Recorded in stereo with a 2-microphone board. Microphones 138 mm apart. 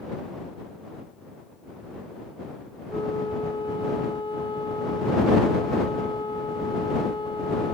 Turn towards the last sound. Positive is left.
turn(degrees=35)  # may be behind; listen again after turning